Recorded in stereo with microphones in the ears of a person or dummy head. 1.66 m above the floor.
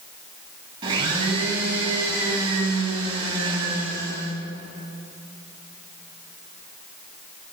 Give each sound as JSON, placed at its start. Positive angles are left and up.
{"t": 0.8, "sound": "a blender", "side_deg": -30, "distance_m": 1.8}